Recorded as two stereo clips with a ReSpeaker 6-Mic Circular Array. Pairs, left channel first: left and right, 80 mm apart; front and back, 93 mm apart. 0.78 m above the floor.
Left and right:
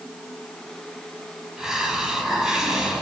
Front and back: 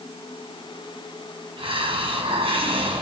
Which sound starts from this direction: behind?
A hiss, at 1.6 s.